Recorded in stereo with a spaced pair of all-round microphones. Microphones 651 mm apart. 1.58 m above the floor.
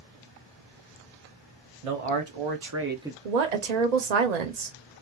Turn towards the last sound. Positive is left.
turn(degrees=-80)